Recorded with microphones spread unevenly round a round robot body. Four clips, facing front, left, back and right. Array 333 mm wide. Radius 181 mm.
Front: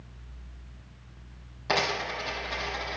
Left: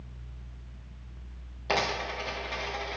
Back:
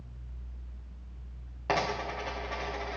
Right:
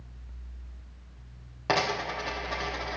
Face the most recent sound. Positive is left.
turn(degrees=-105)